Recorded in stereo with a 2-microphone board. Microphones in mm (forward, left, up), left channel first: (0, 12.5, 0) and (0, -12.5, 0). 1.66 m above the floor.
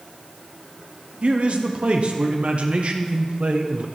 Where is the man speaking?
55° right (ahead or behind), 0.8 m.